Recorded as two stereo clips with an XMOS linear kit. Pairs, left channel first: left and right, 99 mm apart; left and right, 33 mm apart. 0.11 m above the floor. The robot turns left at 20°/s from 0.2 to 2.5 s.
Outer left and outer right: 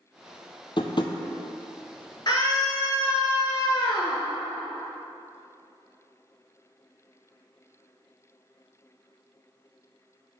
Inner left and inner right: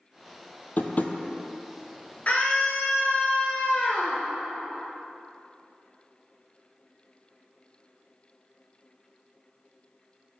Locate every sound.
0.8 s tapping: 55° left (ahead or behind), 0.5 m; by 1.1 s 45° left (ahead or behind), 0.5 m
2.3 s a scream: 45° left (ahead or behind), 1.7 m